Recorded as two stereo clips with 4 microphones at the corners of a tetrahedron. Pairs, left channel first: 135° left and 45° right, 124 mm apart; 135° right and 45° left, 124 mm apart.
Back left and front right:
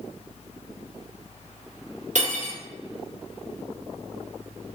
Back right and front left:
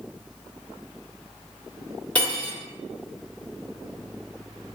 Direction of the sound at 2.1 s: 60° right.